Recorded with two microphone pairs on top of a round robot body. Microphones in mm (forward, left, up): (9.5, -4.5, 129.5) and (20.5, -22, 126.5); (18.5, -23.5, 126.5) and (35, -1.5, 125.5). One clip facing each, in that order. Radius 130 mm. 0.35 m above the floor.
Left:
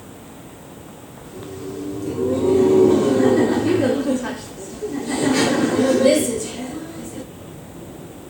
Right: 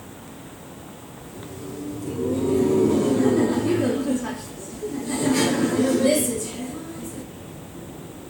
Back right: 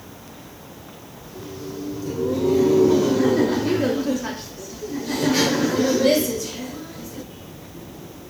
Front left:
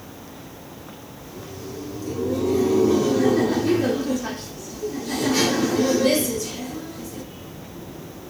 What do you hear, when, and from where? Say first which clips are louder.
1.2 s laughter: left 5 dB, back right 2 dB; 165° left, 0.9 m